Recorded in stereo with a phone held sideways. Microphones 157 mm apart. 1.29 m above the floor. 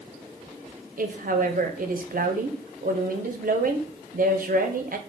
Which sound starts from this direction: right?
A woman speaking, at 1.0 s.